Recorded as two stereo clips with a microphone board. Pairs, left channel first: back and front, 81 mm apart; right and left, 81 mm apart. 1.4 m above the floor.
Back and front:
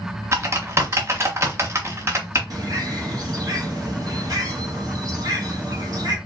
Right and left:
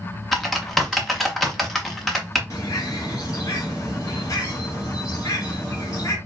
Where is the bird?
40° right, 1.4 m.